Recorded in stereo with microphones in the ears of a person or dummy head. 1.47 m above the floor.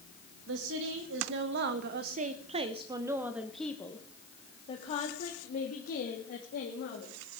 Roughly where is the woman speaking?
Right.